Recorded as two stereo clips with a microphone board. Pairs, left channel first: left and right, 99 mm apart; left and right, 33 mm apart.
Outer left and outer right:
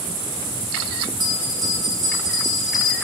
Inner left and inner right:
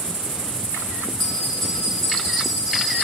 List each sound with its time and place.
1.2 s a bell: 5° left (ahead or behind), 2 m